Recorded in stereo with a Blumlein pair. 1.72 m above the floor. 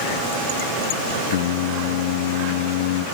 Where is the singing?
50° left, 0.5 m.